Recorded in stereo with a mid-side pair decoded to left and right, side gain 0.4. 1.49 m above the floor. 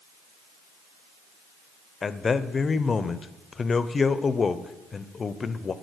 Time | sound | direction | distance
2.0 | a man speaking | 40° left | 0.5 m